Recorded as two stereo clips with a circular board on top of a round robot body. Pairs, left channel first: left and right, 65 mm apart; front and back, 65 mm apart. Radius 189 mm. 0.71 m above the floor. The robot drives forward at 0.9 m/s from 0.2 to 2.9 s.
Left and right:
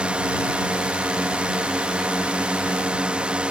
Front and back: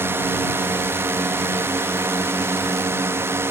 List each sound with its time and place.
0.0 s a drone: 155° right; by 3.5 s 160° right